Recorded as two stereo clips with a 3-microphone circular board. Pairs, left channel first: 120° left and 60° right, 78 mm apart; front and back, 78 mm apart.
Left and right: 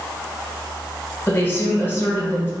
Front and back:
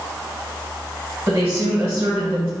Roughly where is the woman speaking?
Behind left.